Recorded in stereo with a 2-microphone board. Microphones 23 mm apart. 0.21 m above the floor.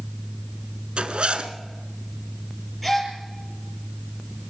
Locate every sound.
1.0 s a zipper: 60° right (ahead or behind), 1.4 m
2.8 s a gasp: centre (ahead or behind), 4 m